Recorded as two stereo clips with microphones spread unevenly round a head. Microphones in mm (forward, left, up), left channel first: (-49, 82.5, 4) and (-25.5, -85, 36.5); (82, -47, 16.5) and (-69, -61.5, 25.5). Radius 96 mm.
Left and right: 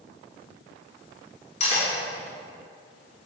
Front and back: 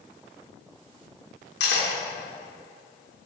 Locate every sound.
1.6 s cutlery clinking: 40° left, 1.5 m